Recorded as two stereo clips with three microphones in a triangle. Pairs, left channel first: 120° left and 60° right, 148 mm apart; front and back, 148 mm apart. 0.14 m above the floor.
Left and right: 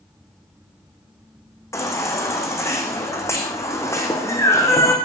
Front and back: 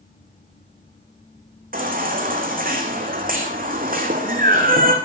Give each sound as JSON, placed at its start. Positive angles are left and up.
{"t": 1.7, "sound": "a baby crying", "azimuth_deg": -170, "distance_m": 3.0}